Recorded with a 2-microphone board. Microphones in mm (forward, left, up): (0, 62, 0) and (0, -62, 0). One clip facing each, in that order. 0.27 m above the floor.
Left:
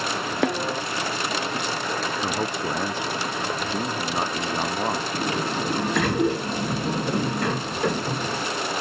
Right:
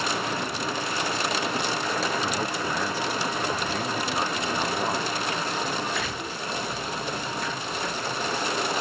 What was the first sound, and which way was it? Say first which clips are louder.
A snare drum: left 6 dB; 90° left.